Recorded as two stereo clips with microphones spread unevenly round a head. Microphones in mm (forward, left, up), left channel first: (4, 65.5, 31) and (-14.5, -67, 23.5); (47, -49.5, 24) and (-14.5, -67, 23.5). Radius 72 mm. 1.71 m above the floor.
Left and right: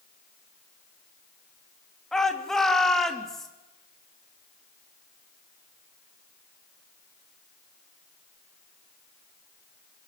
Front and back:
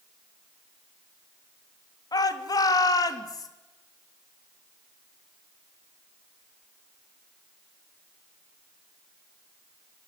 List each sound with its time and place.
2.1 s a shout: 5° right, 3 m